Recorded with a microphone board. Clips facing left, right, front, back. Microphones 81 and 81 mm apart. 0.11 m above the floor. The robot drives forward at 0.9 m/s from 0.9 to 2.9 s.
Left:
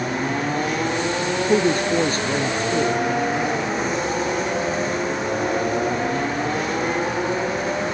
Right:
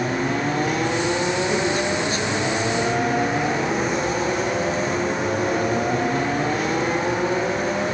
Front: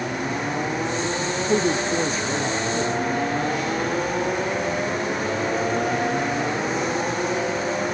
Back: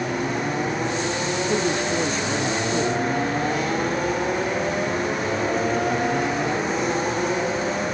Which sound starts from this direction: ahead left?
A woman speaking, at 1.5 s.